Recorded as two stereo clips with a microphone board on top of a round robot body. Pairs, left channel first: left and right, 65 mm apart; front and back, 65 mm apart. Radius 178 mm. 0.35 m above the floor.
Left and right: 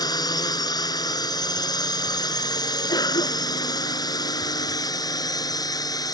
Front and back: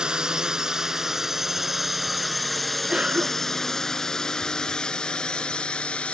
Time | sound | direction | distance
0.0 | a drone | 100° left | ?
2.9 | a cough | 105° left | ?